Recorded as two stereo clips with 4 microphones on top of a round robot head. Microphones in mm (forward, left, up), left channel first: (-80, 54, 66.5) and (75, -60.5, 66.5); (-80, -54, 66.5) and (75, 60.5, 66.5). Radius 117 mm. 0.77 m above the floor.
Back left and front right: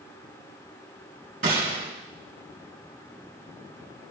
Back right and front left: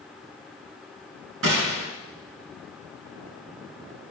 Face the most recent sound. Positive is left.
turn(degrees=15)